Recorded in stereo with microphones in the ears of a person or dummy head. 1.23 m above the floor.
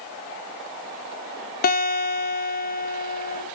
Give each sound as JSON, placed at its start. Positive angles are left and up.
{"t": 1.6, "sound": "a guitar", "side_deg": 50, "distance_m": 1.6}